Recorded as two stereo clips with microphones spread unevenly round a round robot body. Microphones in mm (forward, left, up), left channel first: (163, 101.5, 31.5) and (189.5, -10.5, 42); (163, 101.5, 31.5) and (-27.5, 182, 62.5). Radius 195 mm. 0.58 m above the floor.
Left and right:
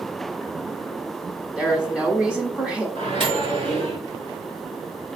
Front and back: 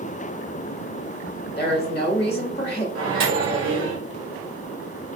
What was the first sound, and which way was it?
A woman speaking, 25° left.